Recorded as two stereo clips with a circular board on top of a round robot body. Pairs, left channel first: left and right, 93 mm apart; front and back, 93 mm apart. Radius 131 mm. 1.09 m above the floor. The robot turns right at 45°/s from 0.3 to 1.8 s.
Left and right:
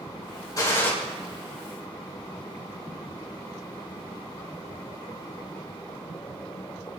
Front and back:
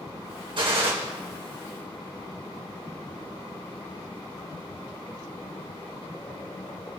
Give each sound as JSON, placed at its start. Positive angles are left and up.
{"t": 0.6, "sound": "a gunshot", "azimuth_deg": 145, "distance_m": 3.0}